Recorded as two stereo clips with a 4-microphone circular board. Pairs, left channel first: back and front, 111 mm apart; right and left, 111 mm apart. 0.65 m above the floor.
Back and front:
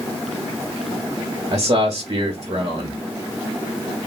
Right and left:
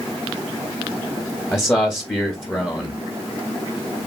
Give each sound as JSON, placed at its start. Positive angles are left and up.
{"t": 1.5, "sound": "a man speaking", "azimuth_deg": -20, "distance_m": 0.9}